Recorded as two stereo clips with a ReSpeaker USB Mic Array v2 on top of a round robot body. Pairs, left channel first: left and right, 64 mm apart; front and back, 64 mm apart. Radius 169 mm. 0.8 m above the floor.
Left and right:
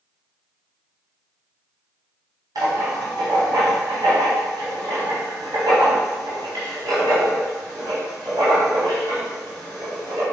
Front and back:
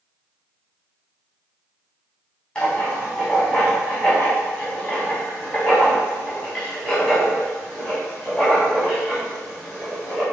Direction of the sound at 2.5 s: 75° right.